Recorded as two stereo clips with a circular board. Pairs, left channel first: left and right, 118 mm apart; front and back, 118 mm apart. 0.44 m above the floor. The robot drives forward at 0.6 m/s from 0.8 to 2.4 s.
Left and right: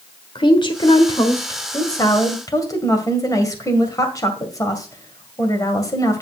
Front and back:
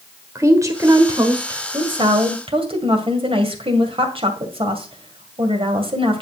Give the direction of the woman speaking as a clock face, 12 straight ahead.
8 o'clock.